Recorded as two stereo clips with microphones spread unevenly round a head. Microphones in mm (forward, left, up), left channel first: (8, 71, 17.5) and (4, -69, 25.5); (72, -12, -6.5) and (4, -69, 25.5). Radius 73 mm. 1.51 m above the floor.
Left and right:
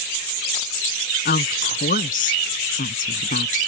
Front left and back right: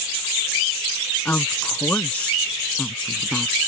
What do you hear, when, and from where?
1.2 s a woman speaking: 125° left; by 3.6 s 130° left